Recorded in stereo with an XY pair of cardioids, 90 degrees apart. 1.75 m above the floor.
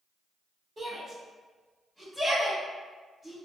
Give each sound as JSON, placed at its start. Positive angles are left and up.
{"t": 0.8, "sound": "a shout", "azimuth_deg": -35, "distance_m": 1.3}